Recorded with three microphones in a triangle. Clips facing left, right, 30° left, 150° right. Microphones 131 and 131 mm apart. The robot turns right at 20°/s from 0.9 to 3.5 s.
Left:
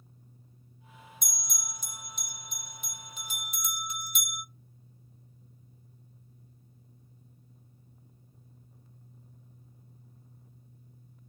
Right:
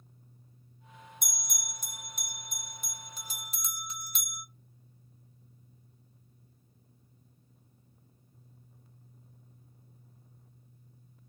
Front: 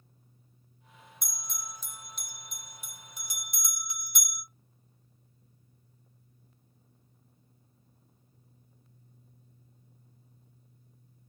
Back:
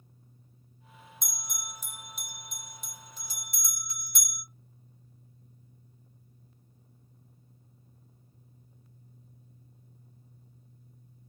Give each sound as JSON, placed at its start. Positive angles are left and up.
{"t": 1.2, "sound": "a bell", "azimuth_deg": -85, "distance_m": 1.4}